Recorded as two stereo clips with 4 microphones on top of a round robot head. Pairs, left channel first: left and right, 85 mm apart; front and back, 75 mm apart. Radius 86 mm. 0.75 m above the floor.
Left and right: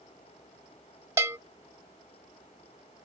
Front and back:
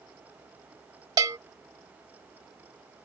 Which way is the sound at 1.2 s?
150° right.